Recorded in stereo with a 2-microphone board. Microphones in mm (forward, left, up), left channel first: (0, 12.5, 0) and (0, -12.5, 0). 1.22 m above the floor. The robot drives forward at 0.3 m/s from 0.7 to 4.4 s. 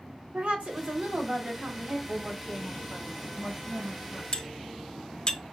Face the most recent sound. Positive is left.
turn(degrees=35)  # may be behind; listen again after turning